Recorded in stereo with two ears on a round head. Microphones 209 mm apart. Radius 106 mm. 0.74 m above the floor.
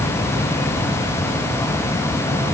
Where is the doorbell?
No doorbell in this recording.